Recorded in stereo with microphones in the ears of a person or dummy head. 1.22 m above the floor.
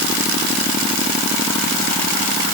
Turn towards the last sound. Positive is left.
No sound to turn to.